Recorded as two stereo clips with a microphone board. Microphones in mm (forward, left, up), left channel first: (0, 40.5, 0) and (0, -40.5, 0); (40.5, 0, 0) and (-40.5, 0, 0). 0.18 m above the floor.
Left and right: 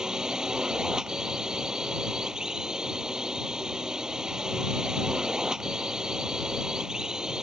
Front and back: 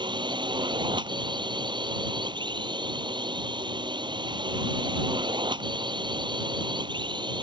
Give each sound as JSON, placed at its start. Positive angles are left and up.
{"t": 0.0, "sound": "a drone", "azimuth_deg": -170}